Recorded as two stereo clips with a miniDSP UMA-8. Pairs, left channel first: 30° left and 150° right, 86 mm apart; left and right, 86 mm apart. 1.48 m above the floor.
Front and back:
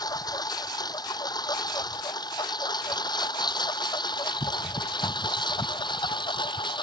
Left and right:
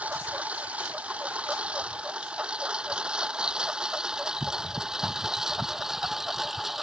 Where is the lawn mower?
15° right; by 6.8 s 5° right.